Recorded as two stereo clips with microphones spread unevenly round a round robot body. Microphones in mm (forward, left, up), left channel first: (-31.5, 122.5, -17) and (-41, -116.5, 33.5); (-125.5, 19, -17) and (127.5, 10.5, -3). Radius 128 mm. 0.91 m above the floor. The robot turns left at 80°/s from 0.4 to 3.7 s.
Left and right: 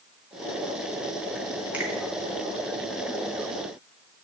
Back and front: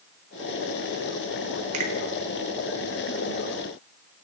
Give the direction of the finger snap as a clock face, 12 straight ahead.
12 o'clock.